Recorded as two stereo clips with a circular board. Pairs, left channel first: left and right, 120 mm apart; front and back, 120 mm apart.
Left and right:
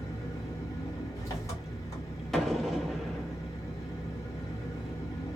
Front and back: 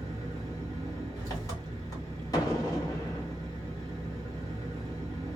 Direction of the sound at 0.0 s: 40° left.